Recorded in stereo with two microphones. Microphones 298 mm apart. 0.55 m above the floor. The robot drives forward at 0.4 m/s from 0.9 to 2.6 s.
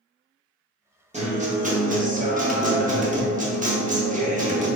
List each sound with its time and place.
1.1 s a guitar: 20° right (ahead or behind), 0.7 m; by 4.7 s 25° right (ahead or behind), 0.6 m